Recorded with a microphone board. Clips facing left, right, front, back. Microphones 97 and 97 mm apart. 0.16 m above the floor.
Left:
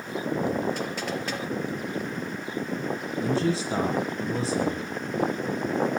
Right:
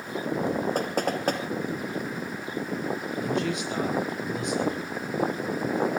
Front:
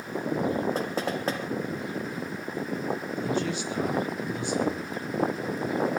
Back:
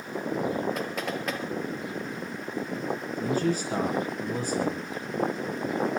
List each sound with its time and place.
0.8 s knocking: 55° right, 3 m
3.2 s a man speaking: 140° left, 3.5 m